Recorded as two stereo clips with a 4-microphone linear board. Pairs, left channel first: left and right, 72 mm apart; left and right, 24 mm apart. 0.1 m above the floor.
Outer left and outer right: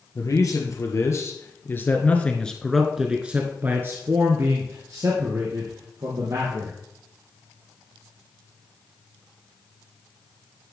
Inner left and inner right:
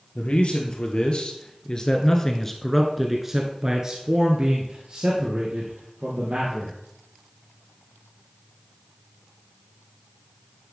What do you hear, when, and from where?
0.1 s a man speaking: 55° left (ahead or behind), 1.9 m; by 6.8 s 65° right (ahead or behind), 2.5 m